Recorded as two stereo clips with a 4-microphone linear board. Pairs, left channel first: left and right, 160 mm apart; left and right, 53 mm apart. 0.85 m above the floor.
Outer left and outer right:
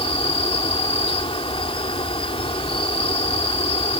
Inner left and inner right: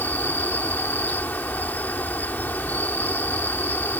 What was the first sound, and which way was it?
An insect, 35° left (ahead or behind).